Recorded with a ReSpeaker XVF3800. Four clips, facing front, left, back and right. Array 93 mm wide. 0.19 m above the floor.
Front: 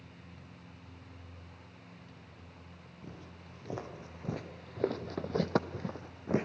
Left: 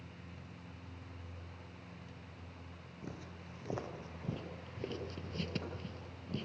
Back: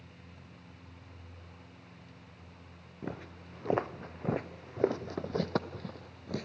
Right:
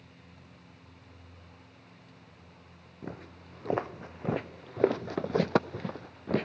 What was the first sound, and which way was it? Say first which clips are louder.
Footsteps: right 6 dB, back 9 dB; 150° right.